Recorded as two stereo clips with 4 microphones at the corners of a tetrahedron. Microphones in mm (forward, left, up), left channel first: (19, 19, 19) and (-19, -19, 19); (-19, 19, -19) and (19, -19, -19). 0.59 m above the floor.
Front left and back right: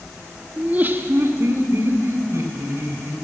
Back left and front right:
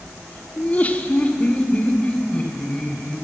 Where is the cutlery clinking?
I don't hear cutlery clinking.